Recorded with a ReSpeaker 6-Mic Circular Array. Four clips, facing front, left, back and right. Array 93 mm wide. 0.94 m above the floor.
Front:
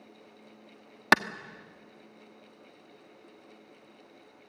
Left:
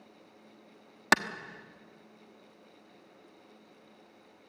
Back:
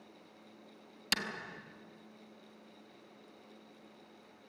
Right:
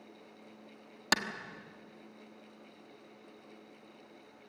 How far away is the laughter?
No laughter in this recording.